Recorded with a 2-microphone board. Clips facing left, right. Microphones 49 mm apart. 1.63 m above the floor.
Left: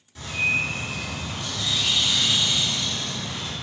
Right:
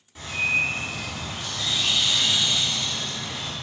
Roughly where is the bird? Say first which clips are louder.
Even; centre.